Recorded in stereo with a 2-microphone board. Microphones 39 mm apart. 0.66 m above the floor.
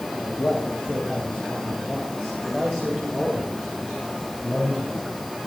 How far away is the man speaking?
About 4 m.